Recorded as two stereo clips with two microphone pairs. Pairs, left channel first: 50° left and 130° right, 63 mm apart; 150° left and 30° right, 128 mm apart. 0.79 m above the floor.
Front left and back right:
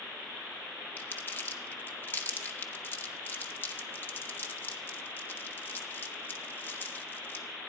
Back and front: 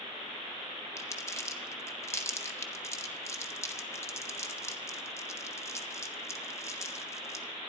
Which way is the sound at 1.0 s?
90° left.